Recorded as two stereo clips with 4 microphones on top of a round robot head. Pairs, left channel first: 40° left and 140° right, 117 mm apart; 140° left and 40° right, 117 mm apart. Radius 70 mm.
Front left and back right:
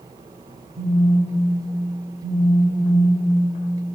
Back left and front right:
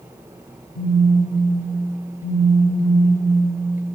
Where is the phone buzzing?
85° right, 1.2 m.